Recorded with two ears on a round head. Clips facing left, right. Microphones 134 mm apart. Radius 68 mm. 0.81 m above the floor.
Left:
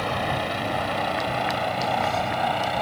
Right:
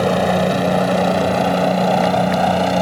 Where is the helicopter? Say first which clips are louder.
Right 11 dB; 55° right (ahead or behind).